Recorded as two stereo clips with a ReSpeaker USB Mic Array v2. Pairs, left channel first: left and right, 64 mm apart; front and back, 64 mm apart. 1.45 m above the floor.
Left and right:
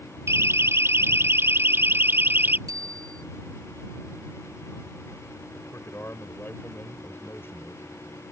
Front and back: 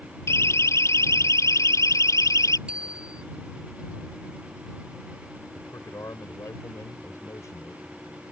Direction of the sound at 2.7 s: 105° right.